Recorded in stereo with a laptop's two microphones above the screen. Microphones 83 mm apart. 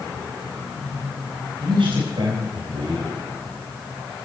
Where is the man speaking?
80° right, 5 m.